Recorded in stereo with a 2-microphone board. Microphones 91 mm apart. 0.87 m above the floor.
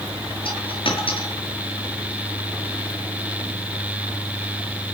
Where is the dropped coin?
80° left, 6 m.